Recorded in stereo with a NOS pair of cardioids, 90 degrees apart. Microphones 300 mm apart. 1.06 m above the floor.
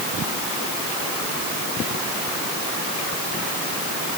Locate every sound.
Only background noise.